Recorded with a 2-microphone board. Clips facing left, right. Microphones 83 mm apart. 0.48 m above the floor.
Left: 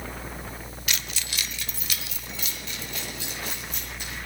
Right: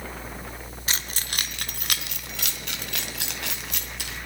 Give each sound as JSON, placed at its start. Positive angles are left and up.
{"t": 0.9, "sound": "keys jangling", "side_deg": -35, "distance_m": 0.8}